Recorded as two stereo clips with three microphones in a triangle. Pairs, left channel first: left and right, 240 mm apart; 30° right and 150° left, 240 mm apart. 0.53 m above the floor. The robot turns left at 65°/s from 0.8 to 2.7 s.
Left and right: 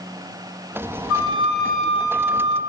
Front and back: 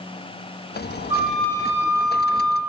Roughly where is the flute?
Left.